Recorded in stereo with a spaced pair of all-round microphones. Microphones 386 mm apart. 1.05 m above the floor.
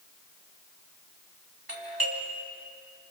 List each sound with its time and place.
1.7 s a doorbell: 65° right (ahead or behind), 2.5 m